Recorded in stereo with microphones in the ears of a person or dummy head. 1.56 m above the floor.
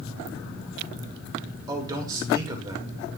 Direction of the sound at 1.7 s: 25° right (ahead or behind).